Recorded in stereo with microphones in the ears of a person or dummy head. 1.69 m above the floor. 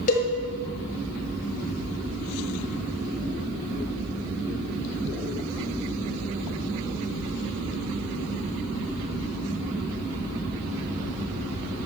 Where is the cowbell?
45° left (ahead or behind), 2 m.